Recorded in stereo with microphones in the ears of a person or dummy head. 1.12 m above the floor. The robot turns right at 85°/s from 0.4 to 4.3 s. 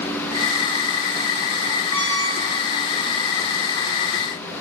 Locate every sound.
1.9 s a squeak: 175° right, 1.1 m; by 2.7 s 110° right, 1.1 m